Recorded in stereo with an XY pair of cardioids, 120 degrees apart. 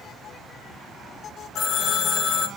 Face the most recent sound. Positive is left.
turn(degrees=60)